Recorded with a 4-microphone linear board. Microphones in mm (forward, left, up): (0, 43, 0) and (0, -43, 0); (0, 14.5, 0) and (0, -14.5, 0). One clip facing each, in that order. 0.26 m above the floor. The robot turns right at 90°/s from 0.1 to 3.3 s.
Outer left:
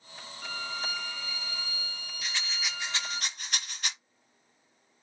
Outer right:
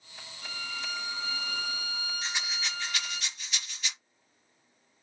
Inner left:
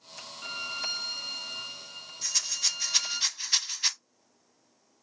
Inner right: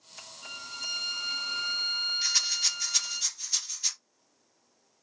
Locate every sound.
0.4 s a violin: 135° left, 0.7 m; by 3.2 s 25° left, 0.7 m
2.2 s a rattle: 25° right (ahead or behind), 0.9 m; by 3.9 s 50° left (ahead or behind), 0.9 m